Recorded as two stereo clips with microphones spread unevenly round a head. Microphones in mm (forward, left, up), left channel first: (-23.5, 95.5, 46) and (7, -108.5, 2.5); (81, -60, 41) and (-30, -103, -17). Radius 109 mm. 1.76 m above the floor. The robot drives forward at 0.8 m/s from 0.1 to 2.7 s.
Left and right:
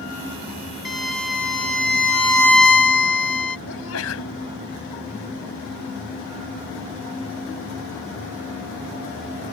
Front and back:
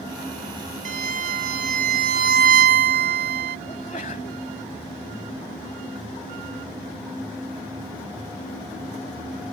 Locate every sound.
0.8 s a violin: 170° left; by 3.6 s 175° left
3.7 s a sneeze: 75° left